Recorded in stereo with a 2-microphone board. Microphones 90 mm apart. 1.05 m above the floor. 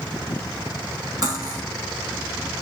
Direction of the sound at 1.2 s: 40° right (ahead or behind).